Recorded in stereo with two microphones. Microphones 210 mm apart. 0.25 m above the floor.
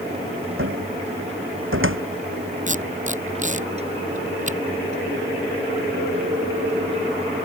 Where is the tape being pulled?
35° right (ahead or behind).